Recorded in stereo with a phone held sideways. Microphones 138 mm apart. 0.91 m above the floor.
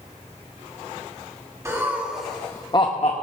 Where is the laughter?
20° right (ahead or behind), 1.5 m; by 3.2 s 60° left (ahead or behind), 1.0 m.